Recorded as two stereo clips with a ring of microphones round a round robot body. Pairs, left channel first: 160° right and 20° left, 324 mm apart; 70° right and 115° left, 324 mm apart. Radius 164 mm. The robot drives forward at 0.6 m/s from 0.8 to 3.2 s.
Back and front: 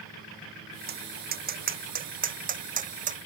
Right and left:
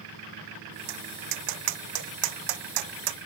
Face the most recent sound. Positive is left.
turn(degrees=90)